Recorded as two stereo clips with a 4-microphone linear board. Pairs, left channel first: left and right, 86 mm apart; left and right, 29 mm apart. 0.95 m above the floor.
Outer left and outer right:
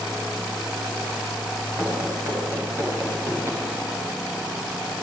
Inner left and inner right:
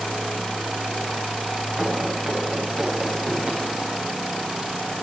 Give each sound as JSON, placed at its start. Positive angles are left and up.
{"t": 1.8, "sound": "running footsteps", "side_deg": -25, "distance_m": 7.5}